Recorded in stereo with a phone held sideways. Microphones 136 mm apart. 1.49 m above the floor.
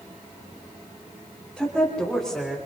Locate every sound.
1.6 s a woman speaking: centre (ahead or behind), 5.5 m; by 2.6 s 5° right (ahead or behind), 5.5 m